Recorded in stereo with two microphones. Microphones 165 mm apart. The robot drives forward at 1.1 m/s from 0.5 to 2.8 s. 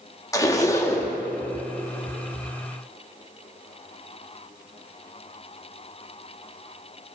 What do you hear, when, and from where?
0.3 s a zipper: 20° left (ahead or behind), 0.7 m; by 1.1 s 15° left (ahead or behind), 1.0 m